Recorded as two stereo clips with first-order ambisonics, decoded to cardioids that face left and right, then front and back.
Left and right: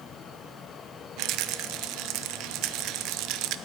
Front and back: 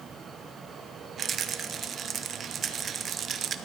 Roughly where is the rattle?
Behind right.